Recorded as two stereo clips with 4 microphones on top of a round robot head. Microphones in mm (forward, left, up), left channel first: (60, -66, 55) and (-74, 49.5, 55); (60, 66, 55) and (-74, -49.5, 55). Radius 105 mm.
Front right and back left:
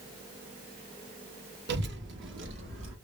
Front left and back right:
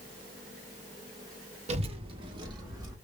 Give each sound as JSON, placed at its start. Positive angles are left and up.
{"t": 1.7, "sound": "a child speaking", "azimuth_deg": 165, "distance_m": 1.0}